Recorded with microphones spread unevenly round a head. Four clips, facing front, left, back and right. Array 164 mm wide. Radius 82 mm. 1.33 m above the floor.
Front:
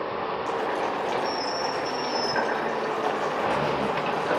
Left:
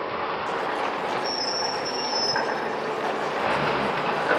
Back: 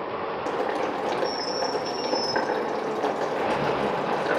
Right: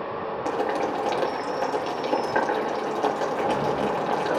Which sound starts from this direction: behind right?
Boiling, at 0.5 s.